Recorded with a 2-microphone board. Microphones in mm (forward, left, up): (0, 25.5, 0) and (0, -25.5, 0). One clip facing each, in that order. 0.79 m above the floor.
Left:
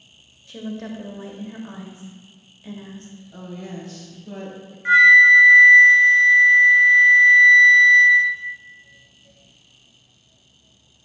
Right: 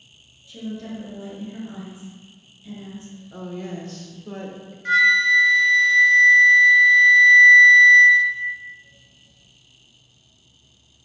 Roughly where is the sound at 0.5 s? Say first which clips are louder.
Left 1 dB; left.